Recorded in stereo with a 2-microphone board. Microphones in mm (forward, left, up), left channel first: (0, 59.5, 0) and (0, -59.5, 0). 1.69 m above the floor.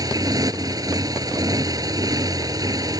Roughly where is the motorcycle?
Right.